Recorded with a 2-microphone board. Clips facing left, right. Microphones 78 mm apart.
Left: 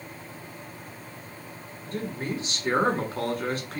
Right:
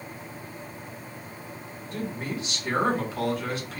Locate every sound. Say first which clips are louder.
1.9 s a man speaking: left 1 dB; 40° left (ahead or behind), 2.5 m